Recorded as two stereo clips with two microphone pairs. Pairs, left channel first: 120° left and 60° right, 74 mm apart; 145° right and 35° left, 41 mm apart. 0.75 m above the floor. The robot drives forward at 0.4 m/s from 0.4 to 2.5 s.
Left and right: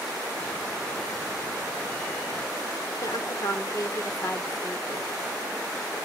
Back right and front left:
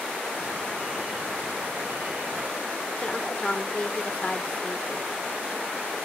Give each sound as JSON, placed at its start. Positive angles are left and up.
{"t": 3.0, "sound": "a woman speaking", "azimuth_deg": 160, "distance_m": 1.8}